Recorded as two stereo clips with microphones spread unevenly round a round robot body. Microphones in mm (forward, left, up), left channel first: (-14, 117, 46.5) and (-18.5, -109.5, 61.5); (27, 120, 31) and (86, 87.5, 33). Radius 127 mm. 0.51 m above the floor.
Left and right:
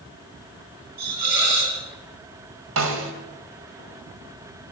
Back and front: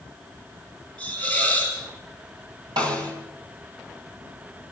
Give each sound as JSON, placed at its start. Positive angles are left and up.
{"t": 1.0, "sound": "a hiss", "azimuth_deg": -75, "distance_m": 4.5}
{"t": 2.8, "sound": "a snare drum", "azimuth_deg": -60, "distance_m": 2.0}